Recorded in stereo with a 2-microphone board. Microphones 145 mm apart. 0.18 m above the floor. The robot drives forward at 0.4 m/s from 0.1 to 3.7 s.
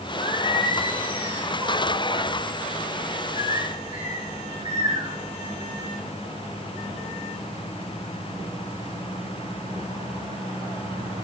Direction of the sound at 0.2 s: 40° right (ahead or behind).